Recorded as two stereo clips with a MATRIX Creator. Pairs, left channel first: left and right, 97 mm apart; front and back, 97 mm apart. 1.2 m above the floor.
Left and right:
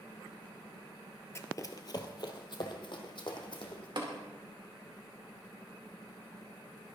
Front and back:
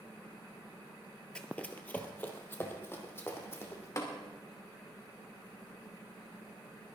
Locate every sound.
1.4 s running footsteps: 70° left, 1.3 m; by 3.9 s 60° left, 3.5 m
4.0 s tapping: 55° right, 2.5 m